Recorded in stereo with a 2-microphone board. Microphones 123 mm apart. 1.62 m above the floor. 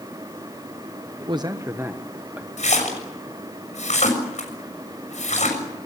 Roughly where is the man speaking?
Right.